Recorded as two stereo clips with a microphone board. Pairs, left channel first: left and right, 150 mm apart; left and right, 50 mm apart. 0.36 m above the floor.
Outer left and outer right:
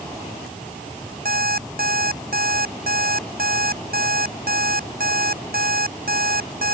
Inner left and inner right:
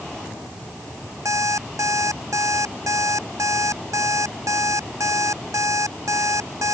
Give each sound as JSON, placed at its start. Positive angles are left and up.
{"t": 1.2, "sound": "an alarm clock", "side_deg": -85}